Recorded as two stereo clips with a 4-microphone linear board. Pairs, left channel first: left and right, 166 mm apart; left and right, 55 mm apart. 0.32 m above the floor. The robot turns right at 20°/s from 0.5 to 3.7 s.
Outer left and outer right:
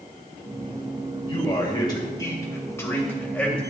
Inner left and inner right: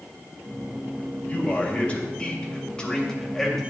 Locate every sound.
1.3 s a man speaking: 125° left, 1.6 m; by 3.6 s 170° left, 1.6 m